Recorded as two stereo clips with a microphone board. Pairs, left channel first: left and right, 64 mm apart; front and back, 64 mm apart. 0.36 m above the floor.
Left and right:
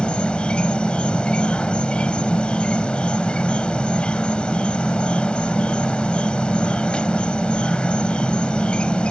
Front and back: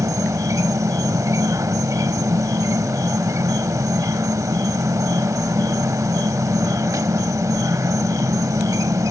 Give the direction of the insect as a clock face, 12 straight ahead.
7 o'clock.